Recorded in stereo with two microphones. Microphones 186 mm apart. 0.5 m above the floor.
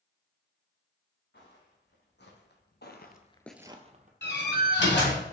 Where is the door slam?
75° left (ahead or behind), 2.5 m.